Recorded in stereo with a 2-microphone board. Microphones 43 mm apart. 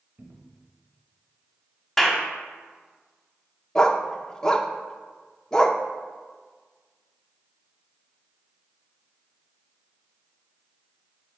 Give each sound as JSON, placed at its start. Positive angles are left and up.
{"t": 0.2, "sound": "a cupboard door", "side_deg": -40, "distance_m": 1.2}
{"t": 2.0, "sound": "a clap", "side_deg": 5, "distance_m": 1.2}
{"t": 3.8, "sound": "a dog barking", "side_deg": 15, "distance_m": 0.5}